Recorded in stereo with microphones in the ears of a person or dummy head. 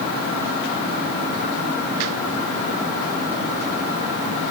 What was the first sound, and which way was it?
Only background noise.